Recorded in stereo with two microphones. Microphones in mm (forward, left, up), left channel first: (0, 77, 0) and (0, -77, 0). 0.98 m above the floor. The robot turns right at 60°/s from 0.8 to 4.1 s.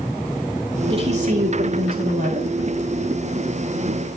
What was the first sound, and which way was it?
A woman speaking, 145° right.